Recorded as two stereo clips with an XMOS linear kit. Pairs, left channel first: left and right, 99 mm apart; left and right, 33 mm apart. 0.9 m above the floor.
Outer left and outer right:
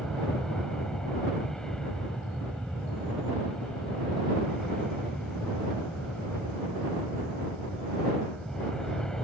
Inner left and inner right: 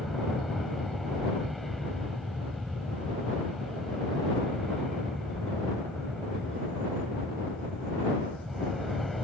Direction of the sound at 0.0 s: 5° left (ahead or behind).